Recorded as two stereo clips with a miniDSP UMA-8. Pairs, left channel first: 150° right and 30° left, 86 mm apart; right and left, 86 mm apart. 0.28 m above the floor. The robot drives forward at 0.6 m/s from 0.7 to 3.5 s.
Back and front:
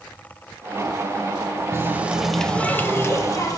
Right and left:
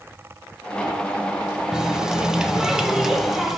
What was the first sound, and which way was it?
A running tap, 15° left.